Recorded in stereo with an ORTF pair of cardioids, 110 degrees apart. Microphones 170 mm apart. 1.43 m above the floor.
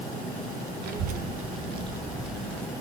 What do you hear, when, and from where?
0.8 s a child speaking: 70° right, 0.8 m; by 2.7 s 10° left, 0.7 m